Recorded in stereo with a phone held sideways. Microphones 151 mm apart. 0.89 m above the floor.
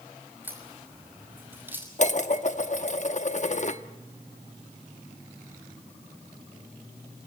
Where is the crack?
15° right (ahead or behind), 5.5 m.